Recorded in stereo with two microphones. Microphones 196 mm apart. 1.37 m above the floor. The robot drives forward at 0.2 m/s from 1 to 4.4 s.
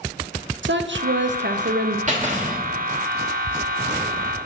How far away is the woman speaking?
About 0.5 m.